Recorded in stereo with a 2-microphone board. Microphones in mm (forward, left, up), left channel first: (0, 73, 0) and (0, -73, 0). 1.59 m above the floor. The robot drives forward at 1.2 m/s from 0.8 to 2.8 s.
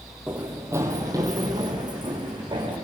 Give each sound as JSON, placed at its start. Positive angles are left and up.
{"t": 0.3, "sound": "running footsteps", "side_deg": -5, "distance_m": 2.0}